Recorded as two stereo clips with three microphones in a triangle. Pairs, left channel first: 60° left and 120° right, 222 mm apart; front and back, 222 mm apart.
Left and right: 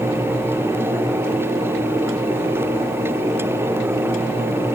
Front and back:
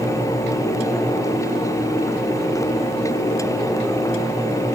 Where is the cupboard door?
I don't hear a cupboard door.